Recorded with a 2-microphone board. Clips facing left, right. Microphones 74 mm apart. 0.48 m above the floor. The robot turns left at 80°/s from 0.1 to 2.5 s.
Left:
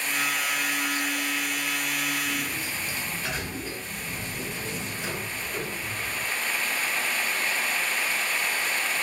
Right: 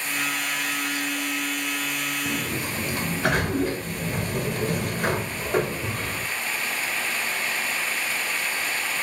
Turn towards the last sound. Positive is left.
turn(degrees=-55)  # may be behind; listen again after turning